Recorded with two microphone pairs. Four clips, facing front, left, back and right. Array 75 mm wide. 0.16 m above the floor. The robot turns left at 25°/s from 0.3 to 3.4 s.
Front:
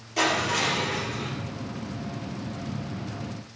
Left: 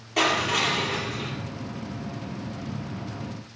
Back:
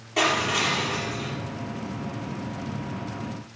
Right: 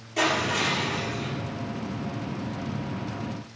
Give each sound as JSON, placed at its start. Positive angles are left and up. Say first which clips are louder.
{"t": 0.2, "sound": "crushing", "louder": "left 1 dB, back 1 dB", "azimuth_deg": 130, "distance_m": 4.5}